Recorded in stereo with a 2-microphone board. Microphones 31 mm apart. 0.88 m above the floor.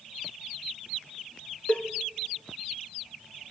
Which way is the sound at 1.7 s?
45° left (ahead or behind).